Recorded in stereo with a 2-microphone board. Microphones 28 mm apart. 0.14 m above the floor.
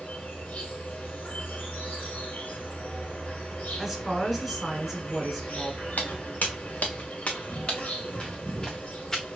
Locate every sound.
0.0 s an insect: 55° left (ahead or behind), 2.5 m
3.8 s a woman speaking: 10° right (ahead or behind), 1.5 m
6.0 s footsteps: 75° left (ahead or behind), 1.9 m; by 9.2 s 15° left (ahead or behind), 2 m